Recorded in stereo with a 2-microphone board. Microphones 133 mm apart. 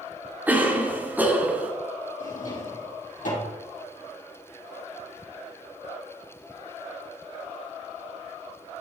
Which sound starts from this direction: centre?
A cough, at 0.5 s.